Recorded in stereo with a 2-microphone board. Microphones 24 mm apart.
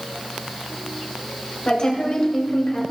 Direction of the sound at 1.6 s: 40° left (ahead or behind).